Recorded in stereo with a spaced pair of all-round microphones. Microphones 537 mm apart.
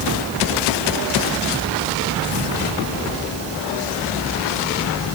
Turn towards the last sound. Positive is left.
No sound to turn to.